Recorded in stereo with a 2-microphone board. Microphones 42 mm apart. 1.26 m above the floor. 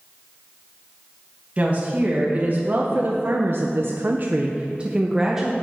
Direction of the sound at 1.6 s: 30° right (ahead or behind).